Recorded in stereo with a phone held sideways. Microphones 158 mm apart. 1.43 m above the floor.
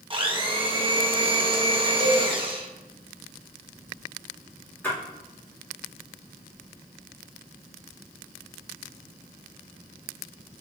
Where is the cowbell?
35° right (ahead or behind), 1.1 m.